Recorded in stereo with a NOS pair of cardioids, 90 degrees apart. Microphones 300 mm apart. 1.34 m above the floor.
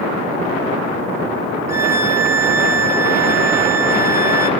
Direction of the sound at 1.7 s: 30° left.